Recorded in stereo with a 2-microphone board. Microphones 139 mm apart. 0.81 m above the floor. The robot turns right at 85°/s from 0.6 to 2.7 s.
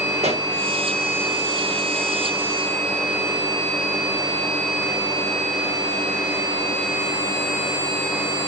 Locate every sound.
0.2 s a pop: 50° right (ahead or behind), 1.1 m